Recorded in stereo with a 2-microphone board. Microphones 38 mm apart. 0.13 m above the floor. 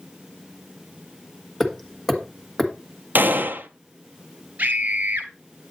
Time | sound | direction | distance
1.6 | hammering | 5° left (ahead or behind) | 1.6 m
3.1 | a gunshot | 60° right (ahead or behind) | 0.6 m
4.6 | a scream | 40° right (ahead or behind) | 2 m